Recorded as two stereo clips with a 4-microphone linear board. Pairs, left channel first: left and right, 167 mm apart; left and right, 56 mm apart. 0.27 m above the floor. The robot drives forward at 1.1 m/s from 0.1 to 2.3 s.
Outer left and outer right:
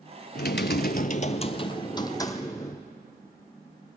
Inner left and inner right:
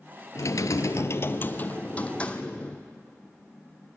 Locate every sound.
0.3 s typing on a keyboard: 65° left (ahead or behind), 0.8 m; by 2.9 s 20° left (ahead or behind), 2.0 m